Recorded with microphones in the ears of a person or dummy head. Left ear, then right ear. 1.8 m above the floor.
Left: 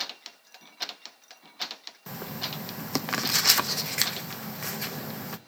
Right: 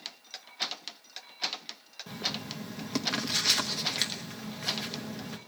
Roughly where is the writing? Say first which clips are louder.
Right 1 dB; left.